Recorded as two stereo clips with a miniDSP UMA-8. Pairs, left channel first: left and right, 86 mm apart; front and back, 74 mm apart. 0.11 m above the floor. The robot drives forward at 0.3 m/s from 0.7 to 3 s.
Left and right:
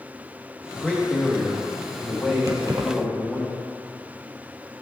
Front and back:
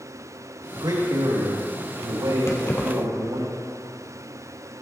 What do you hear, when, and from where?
0.7 s a man speaking: 165° left, 5 m
2.5 s keys jangling: 50° right, 2 m